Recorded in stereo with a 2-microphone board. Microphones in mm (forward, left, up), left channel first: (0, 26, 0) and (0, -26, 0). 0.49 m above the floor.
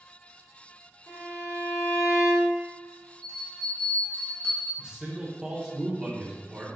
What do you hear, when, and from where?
1.1 s a violin: 80° left, 1.7 m
3.2 s a bell: 60° left (ahead or behind), 1.1 m
4.8 s a man speaking: 15° right (ahead or behind), 0.8 m